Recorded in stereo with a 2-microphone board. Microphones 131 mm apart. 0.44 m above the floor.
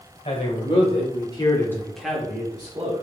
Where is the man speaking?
60° left (ahead or behind), 2.0 m; by 3.0 s 40° right (ahead or behind), 1.5 m.